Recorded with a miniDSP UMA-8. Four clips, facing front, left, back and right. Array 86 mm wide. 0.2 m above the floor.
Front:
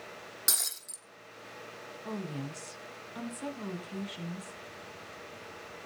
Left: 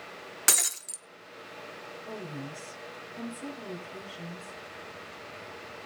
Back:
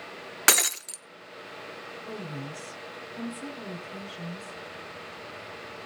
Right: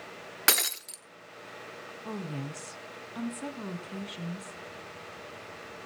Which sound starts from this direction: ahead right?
A woman speaking, at 2.0 s.